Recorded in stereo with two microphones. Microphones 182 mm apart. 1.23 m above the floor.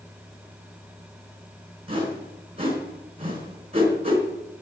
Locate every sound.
1.9 s a whoosh: 35° right (ahead or behind), 4.5 m